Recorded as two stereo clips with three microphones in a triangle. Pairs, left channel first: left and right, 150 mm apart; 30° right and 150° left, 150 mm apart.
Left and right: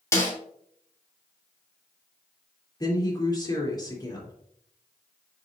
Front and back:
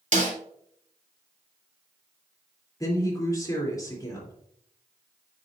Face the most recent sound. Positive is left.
turn(degrees=30)